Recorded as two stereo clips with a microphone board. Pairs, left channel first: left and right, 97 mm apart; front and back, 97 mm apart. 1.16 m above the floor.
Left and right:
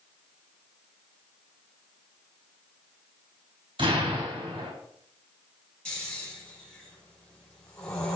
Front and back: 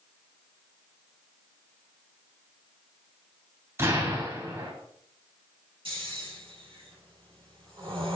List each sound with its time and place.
3.8 s an explosion: 115° right, 3 m
5.8 s snoring: 165° left, 4 m